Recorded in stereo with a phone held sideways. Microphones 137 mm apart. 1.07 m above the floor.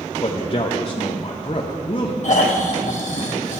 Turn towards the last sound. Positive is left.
turn(degrees=65)  # may be behind; listen again after turning